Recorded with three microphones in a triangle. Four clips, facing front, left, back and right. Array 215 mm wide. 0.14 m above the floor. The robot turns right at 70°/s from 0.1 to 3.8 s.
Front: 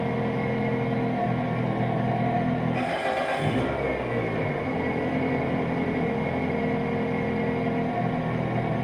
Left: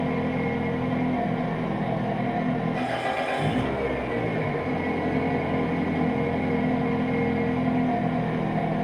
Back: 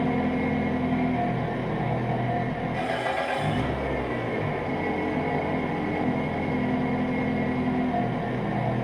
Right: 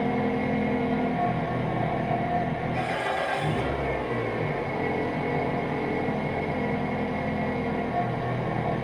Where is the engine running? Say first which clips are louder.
Even, back 2 dB; 170° right, 1.8 m; by 8.8 s 90° left, 1.8 m.